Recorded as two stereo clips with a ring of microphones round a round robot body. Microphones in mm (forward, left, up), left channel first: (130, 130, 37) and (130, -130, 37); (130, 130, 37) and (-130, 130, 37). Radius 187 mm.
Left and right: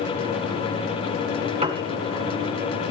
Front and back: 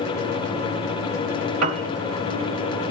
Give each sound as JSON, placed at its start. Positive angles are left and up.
{"t": 1.6, "sound": "a piano", "azimuth_deg": -160, "distance_m": 1.9}